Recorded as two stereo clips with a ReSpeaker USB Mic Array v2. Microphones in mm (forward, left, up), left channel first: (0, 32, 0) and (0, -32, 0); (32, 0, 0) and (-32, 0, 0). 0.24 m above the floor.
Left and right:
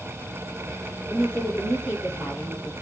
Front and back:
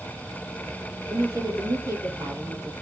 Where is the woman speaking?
145° right, 6.5 m; by 2.7 s 150° right, 7 m.